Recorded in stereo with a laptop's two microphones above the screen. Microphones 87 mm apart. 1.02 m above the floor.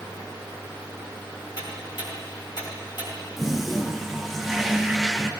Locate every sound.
1.6 s ticking: 60° left (ahead or behind), 3 m
3.4 s a toilet flushing: centre (ahead or behind), 0.6 m